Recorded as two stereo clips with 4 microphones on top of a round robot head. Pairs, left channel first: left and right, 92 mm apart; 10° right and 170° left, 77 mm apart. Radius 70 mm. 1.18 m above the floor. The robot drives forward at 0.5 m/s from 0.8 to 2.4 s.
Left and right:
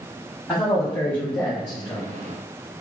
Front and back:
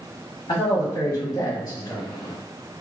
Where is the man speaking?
20° left, 1.8 m; by 2.0 s 30° left, 1.2 m.